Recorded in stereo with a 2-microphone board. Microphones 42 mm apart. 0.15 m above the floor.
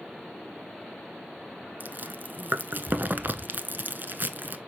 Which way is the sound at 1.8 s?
50° right (ahead or behind).